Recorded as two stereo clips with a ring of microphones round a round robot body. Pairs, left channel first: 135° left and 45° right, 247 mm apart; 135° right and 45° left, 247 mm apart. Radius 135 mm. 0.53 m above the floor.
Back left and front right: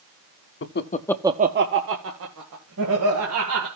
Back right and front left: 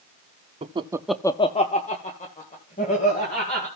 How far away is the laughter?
About 1.0 m.